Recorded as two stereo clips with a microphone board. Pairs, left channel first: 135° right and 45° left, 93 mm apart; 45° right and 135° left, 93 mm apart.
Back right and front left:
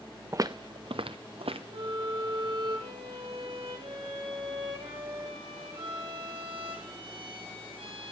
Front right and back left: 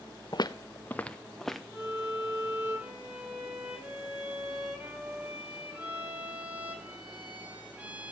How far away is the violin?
About 5 m.